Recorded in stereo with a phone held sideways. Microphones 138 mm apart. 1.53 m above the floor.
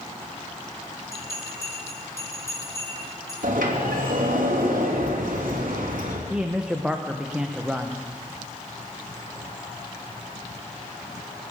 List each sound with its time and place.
1.1 s a bell: 20° left (ahead or behind), 6 m
3.4 s a sliding door: 90° right, 3 m
6.3 s a man speaking: 10° right (ahead or behind), 0.9 m